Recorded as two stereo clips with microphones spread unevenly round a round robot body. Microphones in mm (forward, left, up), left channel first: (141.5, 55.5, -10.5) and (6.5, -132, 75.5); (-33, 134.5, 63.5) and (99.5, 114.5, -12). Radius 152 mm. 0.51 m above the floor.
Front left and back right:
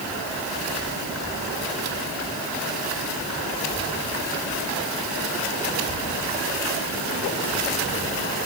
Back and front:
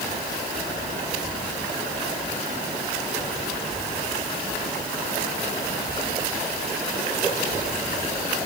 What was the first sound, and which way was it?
Only background noise.